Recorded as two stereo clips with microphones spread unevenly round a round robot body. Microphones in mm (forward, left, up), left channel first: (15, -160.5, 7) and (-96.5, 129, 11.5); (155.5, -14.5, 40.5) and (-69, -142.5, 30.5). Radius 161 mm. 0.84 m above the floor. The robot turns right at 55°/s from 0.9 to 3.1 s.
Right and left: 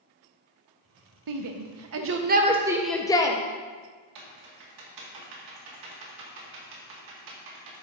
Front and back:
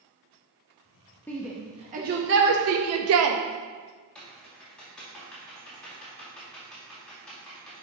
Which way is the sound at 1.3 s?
115° left.